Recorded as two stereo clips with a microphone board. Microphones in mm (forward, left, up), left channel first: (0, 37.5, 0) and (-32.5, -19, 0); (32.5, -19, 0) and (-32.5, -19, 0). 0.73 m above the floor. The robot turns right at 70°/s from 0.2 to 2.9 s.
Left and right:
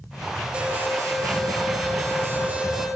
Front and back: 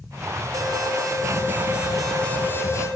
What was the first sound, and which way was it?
An alarm, 170° left.